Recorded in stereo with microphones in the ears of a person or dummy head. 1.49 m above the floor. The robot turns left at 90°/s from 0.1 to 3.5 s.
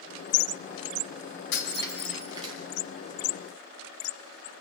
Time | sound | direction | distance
1.5 | breaking glass | 55° left (ahead or behind) | 9 m